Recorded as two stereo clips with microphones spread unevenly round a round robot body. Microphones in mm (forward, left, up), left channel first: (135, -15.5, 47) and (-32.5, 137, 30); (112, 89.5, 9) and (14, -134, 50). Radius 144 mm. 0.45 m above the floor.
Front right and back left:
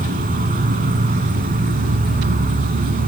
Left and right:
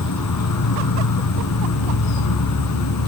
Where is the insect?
85° left, 2.5 m.